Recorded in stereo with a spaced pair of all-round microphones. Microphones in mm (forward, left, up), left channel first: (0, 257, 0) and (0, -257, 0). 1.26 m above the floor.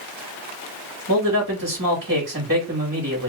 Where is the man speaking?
25° right (ahead or behind), 2.5 m.